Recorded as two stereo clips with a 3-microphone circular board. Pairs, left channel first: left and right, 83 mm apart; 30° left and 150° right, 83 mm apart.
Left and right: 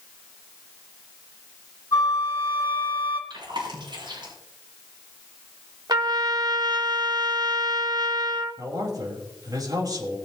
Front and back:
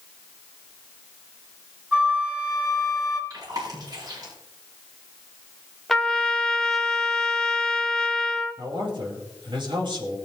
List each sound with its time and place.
1.9 s a flute: 135° left, 3.5 m
3.3 s chewing: 115° right, 7 m
5.9 s a trumpet: 55° right, 1.4 m
8.6 s a man speaking: 130° right, 4.5 m